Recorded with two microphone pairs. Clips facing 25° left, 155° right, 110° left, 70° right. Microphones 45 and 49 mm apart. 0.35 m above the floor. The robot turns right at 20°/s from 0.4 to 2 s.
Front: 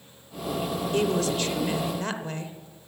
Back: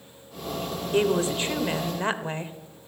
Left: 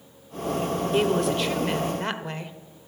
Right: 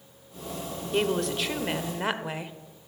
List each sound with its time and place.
0.9 s a woman speaking: 175° right, 1.1 m; by 2.5 s 155° right, 1.1 m